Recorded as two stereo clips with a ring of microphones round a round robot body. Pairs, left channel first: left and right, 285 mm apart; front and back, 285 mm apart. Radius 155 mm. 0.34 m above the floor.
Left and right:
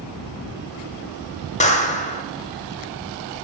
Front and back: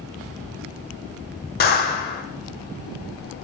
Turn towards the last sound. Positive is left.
turn(degrees=40)